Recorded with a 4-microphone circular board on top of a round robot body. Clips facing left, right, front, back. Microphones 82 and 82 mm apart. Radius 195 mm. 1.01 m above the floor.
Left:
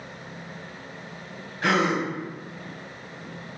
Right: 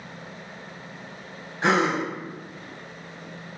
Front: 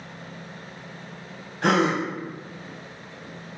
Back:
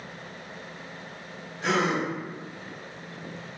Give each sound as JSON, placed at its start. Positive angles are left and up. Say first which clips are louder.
{"t": 1.6, "sound": "a gasp", "louder": "right 1 dB, front 4 dB", "azimuth_deg": -25, "distance_m": 0.9}